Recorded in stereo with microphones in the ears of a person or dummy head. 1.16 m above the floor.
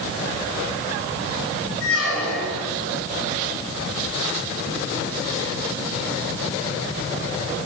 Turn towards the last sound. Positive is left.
turn(degrees=85)